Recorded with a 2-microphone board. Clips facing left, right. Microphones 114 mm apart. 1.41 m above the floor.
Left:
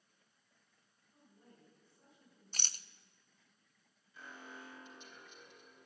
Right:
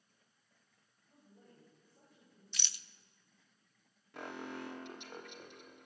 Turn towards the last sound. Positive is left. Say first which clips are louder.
# right 9 dB
turn(degrees=-65)  # may be behind; listen again after turning